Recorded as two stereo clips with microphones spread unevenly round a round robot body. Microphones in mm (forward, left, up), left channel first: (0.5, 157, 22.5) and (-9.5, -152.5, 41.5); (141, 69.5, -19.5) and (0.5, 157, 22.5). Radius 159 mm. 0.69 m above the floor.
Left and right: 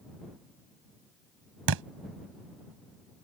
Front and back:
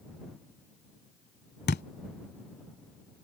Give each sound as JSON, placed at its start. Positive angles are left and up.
{"t": 1.7, "sound": "a thud", "azimuth_deg": -80}